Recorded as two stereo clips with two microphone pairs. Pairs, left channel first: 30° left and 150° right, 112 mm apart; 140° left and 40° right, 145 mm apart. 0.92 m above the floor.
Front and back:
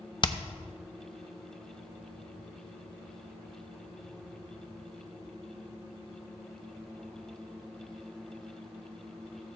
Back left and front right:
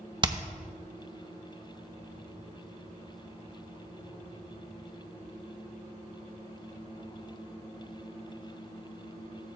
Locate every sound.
0.2 s hammering: 5° left, 0.7 m